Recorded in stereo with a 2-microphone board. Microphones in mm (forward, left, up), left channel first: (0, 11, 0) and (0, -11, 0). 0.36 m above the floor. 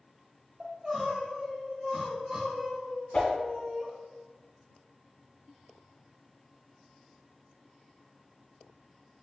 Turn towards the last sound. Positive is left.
turn(degrees=80)